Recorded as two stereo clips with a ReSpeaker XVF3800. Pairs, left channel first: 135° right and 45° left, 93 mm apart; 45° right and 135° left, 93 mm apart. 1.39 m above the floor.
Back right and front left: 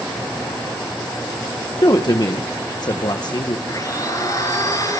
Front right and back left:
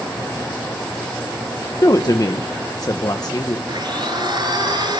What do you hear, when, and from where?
1.8 s a woman speaking: 95° right, 1.2 m
3.7 s a blender: 175° left, 6 m